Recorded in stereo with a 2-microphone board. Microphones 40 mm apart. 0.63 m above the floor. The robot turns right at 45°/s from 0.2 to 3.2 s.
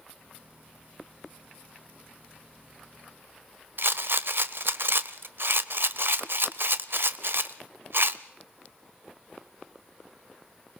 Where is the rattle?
65° right (ahead or behind), 0.8 m.